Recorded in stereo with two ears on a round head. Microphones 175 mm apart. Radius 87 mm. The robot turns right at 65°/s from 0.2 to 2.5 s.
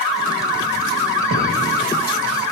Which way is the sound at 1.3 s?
65° right (ahead or behind).